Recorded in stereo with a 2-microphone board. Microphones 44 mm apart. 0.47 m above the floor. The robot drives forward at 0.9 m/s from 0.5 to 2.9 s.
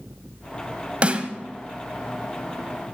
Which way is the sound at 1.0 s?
30° right (ahead or behind).